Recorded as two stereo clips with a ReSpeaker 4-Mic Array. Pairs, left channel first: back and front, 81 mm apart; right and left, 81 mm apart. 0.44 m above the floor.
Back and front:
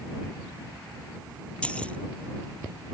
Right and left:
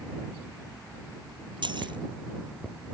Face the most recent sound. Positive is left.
turn(degrees=105)